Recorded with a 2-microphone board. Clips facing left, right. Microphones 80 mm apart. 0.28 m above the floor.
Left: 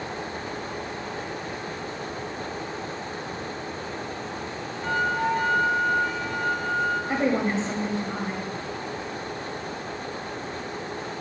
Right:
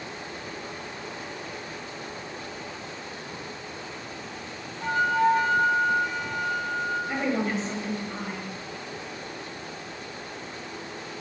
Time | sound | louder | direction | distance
4.8 | a flute | right 3 dB | 55° right (ahead or behind) | 2.5 m
7.1 | a woman speaking | left 3 dB | 30° left (ahead or behind) | 1.1 m